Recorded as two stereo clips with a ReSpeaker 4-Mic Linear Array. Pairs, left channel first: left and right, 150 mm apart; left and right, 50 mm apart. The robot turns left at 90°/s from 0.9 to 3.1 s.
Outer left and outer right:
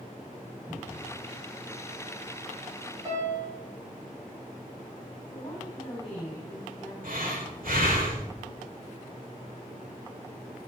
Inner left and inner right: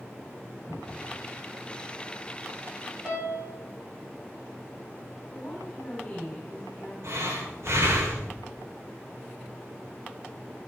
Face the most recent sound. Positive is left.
turn(degrees=-75)  # may be behind; listen again after turning